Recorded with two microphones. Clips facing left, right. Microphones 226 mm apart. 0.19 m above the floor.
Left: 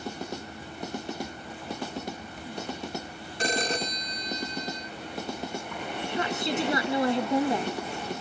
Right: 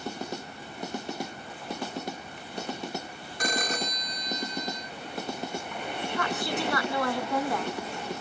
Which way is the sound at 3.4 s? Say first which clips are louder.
Left 2 dB; 30° left (ahead or behind).